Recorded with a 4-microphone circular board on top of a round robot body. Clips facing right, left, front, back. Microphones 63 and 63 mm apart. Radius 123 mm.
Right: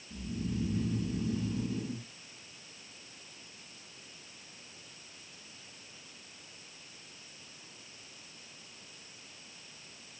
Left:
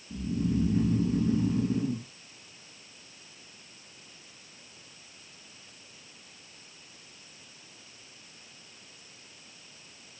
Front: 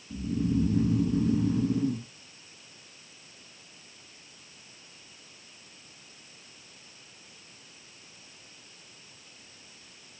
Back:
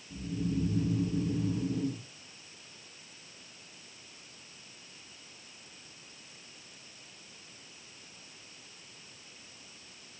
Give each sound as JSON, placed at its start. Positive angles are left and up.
{"t": 0.1, "sound": "snoring", "azimuth_deg": 35, "distance_m": 1.2}